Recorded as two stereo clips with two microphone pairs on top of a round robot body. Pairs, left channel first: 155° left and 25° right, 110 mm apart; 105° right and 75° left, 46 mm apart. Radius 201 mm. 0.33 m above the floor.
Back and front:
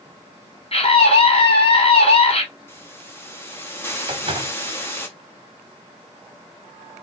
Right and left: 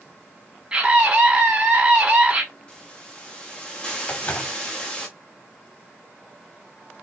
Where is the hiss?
175° right, 1.3 m.